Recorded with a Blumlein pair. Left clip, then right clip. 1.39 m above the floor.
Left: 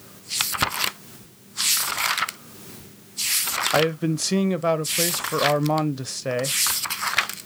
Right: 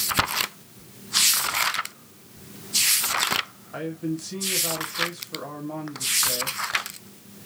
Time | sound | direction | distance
3.7 | a man speaking | 35° left | 0.6 m